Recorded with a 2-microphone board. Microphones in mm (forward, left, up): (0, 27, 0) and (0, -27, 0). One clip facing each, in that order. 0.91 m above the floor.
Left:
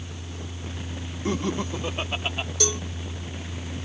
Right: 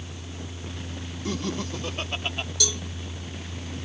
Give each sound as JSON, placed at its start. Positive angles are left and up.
{"t": 1.2, "sound": "laughter", "side_deg": 30}
{"t": 2.6, "sound": "a cowbell", "side_deg": 40}